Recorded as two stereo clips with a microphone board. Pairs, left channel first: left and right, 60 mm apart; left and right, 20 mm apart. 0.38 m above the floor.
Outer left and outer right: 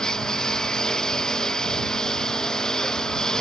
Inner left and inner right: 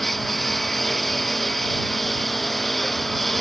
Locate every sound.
0.0 s a lawn mower: 10° left (ahead or behind)